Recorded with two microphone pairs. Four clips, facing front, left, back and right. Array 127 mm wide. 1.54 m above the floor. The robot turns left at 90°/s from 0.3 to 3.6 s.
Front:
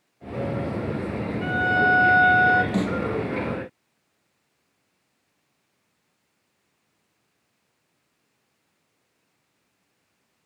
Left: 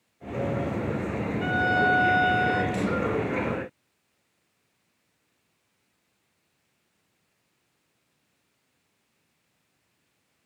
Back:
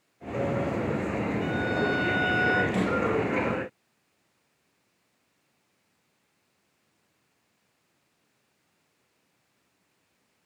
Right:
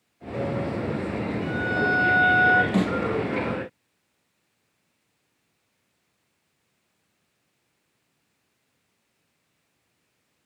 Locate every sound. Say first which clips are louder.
1.4 s a violin: left 3 dB, front 9 dB; 60° left, 2.0 m; by 2.6 s 55° right, 2.0 m
2.7 s a snare drum: right 4 dB, front 2 dB; 55° right, 6.5 m; by 3.0 s 75° right, 6.5 m